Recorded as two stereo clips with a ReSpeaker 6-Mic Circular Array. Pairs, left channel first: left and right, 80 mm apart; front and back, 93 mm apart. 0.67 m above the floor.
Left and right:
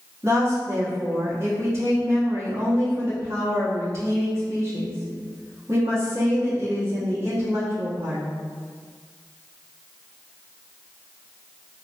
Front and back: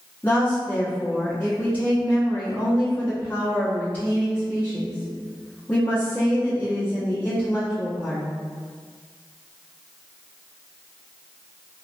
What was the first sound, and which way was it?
A woman speaking, 55° right.